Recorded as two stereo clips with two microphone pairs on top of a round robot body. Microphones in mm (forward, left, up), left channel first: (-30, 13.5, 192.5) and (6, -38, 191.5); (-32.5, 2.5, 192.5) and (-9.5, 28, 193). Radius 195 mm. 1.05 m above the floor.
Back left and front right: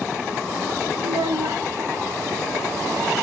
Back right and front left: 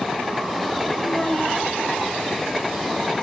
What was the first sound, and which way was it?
A child speaking, 55° right.